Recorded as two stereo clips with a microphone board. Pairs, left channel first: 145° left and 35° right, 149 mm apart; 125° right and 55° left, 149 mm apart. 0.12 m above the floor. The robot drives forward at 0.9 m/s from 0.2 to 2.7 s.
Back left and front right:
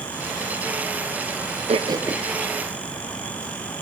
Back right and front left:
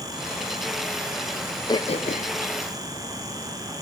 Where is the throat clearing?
65° right, 0.6 m; by 2.4 s 130° right, 0.7 m.